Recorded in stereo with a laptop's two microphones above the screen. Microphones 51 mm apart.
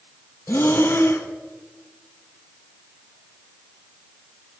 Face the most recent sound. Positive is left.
turn(degrees=55)  # may be behind; listen again after turning